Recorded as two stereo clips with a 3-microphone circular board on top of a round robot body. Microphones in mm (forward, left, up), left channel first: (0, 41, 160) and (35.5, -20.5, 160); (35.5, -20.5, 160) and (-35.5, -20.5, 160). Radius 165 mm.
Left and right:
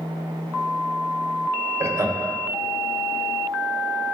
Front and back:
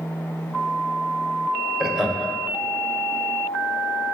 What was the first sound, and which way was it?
Laughter, 100° right.